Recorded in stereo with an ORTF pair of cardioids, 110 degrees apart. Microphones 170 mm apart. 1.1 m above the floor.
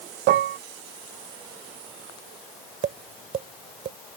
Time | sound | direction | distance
0.3 | dishes clattering | 70° right | ?
2.8 | tapping | 50° right | ?